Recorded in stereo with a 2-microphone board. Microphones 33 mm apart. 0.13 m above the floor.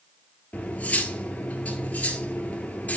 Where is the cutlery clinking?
45° left (ahead or behind), 1.5 m.